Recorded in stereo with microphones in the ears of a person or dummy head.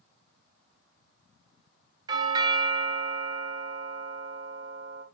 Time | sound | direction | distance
2.1 | a doorbell | 25° right (ahead or behind) | 0.9 m